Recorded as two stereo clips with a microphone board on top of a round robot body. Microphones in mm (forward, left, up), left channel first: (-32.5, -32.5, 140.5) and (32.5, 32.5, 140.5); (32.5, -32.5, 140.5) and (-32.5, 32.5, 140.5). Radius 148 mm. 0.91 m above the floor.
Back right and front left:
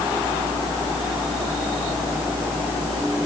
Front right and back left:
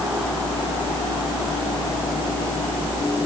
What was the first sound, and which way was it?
Only background noise.